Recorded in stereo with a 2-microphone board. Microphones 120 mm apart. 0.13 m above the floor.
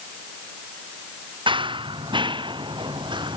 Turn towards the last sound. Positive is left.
turn(degrees=-40)  # may be behind; listen again after turning